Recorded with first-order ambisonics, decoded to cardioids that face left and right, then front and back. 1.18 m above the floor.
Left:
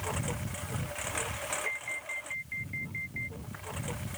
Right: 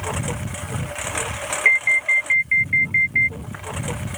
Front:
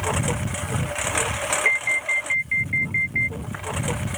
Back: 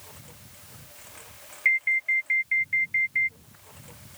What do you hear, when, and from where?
0.0 s a lawn mower: 25° right; by 4.2 s 30° right
1.6 s an alarm: 85° right